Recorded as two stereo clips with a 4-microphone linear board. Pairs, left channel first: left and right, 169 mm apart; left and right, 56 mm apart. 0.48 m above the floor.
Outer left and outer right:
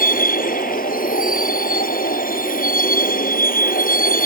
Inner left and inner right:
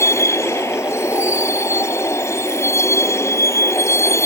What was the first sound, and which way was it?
A vehicle, 60° left (ahead or behind).